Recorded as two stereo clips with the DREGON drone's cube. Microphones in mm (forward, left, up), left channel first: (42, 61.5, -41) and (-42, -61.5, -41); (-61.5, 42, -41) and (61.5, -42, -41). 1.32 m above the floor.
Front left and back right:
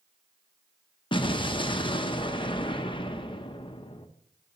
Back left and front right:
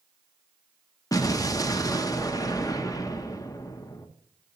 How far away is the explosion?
About 0.6 m.